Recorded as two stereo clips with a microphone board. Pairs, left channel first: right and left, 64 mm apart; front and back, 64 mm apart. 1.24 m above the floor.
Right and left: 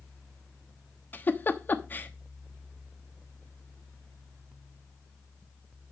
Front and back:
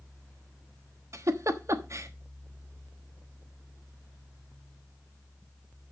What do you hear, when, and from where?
1.1 s a giggle: 145° right, 1.1 m